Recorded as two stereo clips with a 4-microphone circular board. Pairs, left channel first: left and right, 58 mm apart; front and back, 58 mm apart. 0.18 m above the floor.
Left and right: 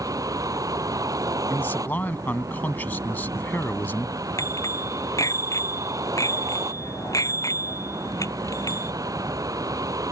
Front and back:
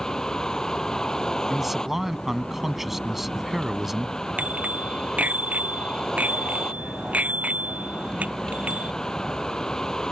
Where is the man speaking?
100° left.